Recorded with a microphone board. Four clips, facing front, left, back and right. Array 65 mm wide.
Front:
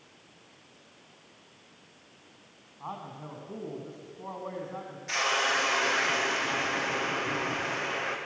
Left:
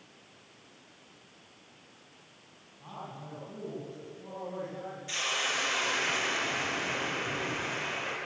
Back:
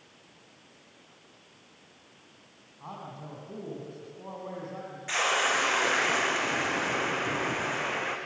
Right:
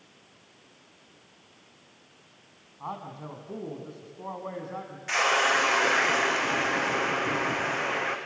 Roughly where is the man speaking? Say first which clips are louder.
Right 6 dB, front 2 dB; right.